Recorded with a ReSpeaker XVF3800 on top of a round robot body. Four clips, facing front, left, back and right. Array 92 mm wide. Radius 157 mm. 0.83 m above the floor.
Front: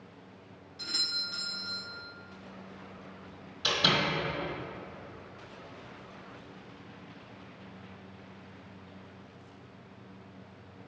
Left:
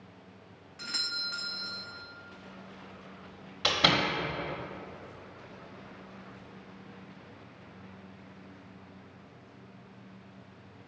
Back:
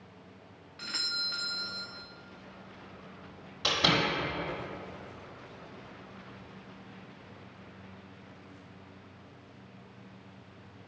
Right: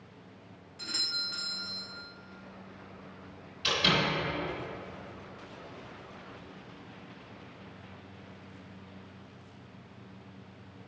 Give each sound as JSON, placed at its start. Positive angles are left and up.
{"t": 0.8, "sound": "a doorbell", "azimuth_deg": 155, "distance_m": 1.5}
{"t": 3.6, "sound": "a door slam", "azimuth_deg": 110, "distance_m": 1.4}